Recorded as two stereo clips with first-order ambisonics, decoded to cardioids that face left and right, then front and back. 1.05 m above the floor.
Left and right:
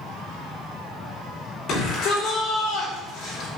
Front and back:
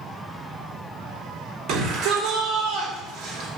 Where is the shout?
140° left, 3.5 m.